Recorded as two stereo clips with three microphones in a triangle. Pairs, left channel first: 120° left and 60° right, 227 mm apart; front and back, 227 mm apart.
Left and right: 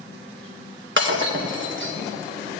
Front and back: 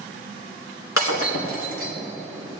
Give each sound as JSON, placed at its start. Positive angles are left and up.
{"t": 1.0, "sound": "breaking glass", "azimuth_deg": -25, "distance_m": 3.5}